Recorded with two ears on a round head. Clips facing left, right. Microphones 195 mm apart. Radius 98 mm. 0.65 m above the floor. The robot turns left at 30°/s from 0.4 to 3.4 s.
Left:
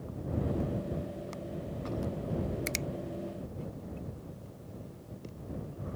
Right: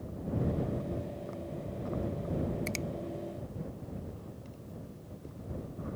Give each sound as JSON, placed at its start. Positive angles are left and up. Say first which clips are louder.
{"t": 2.7, "sound": "a finger snap", "louder": "even", "side_deg": 20}